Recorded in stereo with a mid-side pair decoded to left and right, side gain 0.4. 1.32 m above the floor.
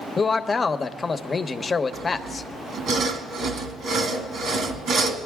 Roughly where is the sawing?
Right.